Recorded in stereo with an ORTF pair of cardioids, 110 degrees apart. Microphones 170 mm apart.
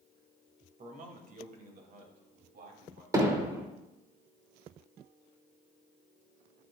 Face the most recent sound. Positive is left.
turn(degrees=-20)